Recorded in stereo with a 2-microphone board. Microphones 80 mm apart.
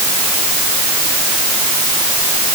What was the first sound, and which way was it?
Only background noise.